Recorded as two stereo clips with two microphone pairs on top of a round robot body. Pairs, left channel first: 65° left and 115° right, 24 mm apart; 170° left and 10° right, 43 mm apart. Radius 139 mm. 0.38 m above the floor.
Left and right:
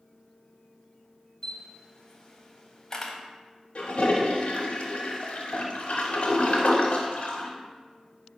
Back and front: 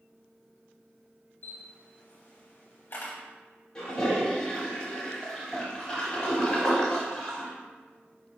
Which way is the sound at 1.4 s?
125° left.